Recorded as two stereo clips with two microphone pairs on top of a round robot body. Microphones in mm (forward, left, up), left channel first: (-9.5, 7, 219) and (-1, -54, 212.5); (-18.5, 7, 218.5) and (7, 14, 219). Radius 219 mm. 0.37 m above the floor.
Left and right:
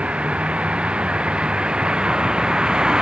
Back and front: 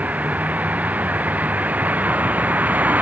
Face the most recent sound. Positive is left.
turn(degrees=0)